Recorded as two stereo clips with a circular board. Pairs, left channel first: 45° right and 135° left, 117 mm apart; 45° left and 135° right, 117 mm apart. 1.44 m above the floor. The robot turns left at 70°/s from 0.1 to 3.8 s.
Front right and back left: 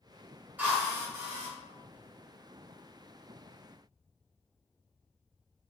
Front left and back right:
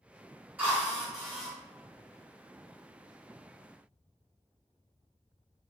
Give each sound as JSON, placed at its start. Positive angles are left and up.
{"t": 0.6, "sound": "a drill", "azimuth_deg": 180, "distance_m": 1.0}